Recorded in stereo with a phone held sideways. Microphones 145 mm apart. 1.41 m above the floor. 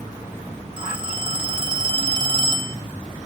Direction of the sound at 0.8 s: 35° right (ahead or behind).